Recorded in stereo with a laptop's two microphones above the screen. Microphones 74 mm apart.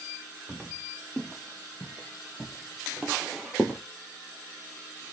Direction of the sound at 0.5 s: 10° right (ahead or behind).